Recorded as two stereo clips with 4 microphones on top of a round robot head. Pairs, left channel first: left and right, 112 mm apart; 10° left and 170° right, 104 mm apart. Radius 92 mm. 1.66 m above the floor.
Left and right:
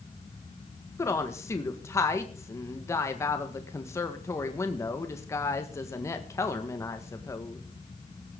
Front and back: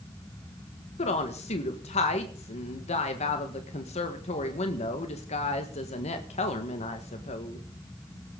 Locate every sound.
1.0 s a woman speaking: 25° left, 1.6 m